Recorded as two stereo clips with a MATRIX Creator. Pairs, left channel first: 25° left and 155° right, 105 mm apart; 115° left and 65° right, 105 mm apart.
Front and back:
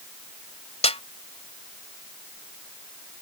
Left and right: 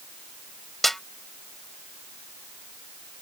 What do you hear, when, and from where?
0.8 s a snare drum: 25° left